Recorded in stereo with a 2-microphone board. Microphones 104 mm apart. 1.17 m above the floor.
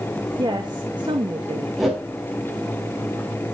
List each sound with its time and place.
0.4 s a woman speaking: 45° right (ahead or behind), 1.8 m
1.8 s a whoosh: centre (ahead or behind), 4 m